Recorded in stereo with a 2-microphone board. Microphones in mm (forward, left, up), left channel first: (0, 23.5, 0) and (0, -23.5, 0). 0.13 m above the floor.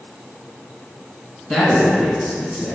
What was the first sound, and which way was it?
A man speaking, 10° left (ahead or behind).